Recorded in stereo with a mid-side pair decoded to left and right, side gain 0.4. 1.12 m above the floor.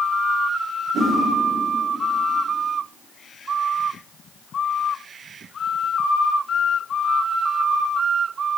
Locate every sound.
0.9 s a whoosh: 65° right, 2 m